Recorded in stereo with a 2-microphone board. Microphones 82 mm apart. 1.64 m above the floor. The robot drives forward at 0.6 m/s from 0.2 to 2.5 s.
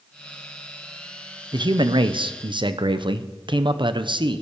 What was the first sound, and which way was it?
A man speaking, 70° right (ahead or behind).